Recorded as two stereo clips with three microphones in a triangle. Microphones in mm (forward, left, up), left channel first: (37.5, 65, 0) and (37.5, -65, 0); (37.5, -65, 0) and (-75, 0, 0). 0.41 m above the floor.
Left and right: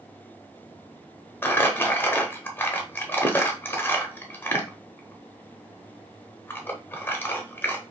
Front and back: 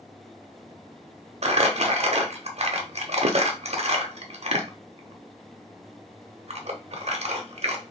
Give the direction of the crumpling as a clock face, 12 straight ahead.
7 o'clock.